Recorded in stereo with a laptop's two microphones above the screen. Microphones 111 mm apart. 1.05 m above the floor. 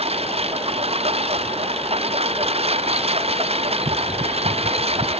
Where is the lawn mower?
65° right (ahead or behind).